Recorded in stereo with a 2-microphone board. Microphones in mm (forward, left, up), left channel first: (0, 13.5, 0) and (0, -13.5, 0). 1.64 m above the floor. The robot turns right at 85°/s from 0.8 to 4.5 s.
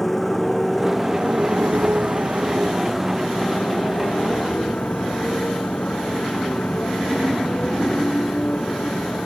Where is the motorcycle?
10° left (ahead or behind); by 9.3 s 60° left (ahead or behind).